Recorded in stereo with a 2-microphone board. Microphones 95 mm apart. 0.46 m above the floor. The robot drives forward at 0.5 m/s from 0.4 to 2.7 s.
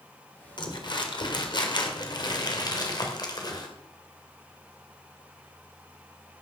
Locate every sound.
0.6 s crumpling: 50° left (ahead or behind), 1.9 m; by 3.7 s 45° left (ahead or behind), 2 m